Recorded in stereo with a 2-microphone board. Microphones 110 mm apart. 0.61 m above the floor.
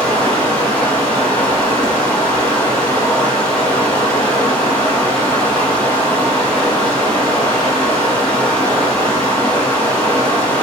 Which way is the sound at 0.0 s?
15° left (ahead or behind).